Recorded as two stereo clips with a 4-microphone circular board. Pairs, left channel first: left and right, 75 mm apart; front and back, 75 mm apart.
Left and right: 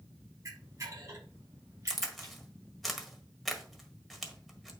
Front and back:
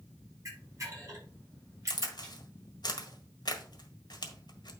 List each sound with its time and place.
0.5 s a camera shutter: 135° right, 4.5 m
1.9 s a crack: straight ahead, 1.6 m